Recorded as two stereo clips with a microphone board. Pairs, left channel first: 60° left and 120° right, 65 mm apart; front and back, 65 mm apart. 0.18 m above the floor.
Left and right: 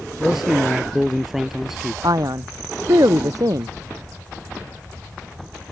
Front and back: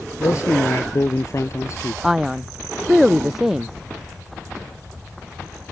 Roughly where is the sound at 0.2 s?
Ahead right.